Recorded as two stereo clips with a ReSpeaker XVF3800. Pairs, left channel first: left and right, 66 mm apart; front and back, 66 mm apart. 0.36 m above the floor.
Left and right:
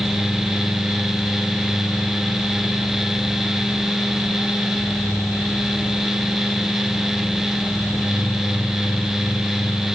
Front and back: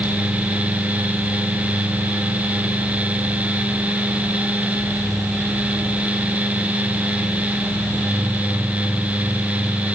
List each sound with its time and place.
Only background noise.